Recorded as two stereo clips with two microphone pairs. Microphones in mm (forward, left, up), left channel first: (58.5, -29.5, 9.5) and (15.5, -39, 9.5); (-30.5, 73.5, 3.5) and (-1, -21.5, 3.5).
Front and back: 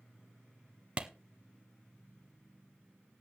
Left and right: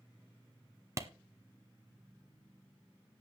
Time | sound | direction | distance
1.0 | a clap | 115° right | 1.2 m